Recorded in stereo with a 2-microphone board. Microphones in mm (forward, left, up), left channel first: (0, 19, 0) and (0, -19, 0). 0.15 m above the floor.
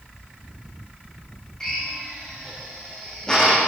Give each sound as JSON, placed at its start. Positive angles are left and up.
{"t": 1.6, "sound": "a drill", "side_deg": 20, "distance_m": 4.5}